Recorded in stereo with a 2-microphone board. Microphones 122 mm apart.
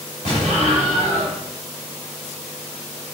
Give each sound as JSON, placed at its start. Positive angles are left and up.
{"t": 0.2, "sound": "an explosion", "side_deg": -80, "distance_m": 5.0}